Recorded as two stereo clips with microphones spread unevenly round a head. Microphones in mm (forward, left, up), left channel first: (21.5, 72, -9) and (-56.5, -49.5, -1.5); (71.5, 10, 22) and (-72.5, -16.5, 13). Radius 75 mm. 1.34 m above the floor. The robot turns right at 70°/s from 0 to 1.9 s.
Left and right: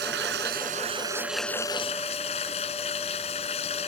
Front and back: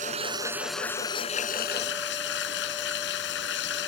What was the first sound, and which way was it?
Running water, 130° right.